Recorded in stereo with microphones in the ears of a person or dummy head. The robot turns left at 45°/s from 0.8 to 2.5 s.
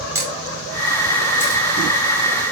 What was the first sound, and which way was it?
A camera shutter, 15° right (ahead or behind).